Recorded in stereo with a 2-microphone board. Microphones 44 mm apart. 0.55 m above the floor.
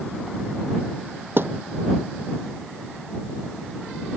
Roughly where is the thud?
Right.